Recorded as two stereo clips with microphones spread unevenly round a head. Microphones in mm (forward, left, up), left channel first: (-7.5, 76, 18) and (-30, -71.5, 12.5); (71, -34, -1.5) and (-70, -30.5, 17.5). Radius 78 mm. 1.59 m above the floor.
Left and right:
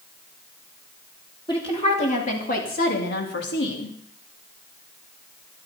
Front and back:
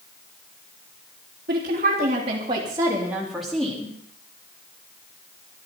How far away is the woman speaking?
About 3.5 m.